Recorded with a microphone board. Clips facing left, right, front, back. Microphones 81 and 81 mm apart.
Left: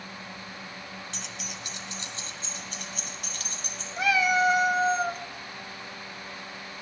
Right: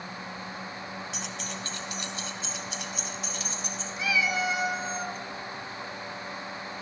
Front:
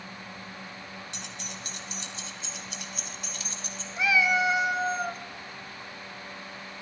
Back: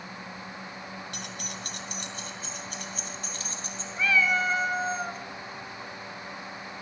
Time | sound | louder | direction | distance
1.1 | keys jangling | right 4 dB, back 3 dB | 175° right | 1.4 m
4.0 | a cat meowing | left 5 dB, front 1 dB | 75° left | 0.6 m